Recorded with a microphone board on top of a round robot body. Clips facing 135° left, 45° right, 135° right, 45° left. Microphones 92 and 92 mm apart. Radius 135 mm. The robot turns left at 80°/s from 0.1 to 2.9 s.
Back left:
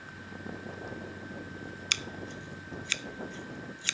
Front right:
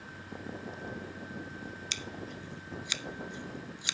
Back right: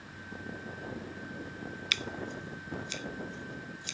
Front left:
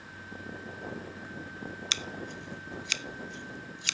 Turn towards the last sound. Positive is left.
turn(degrees=30)